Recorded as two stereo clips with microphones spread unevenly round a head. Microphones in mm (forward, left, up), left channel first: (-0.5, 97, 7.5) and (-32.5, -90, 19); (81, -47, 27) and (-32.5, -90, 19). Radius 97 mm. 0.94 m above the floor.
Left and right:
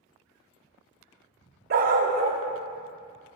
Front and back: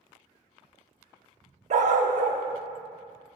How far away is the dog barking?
About 0.8 m.